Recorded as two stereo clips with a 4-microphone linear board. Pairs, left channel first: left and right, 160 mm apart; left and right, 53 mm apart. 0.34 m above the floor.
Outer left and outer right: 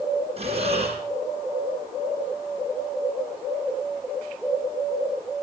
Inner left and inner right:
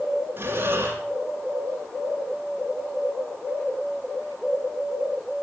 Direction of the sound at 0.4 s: 40° right (ahead or behind).